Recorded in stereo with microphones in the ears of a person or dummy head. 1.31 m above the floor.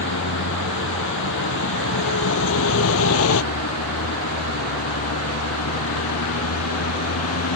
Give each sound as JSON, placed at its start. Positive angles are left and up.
{"t": 0.0, "sound": "a vehicle", "side_deg": 70}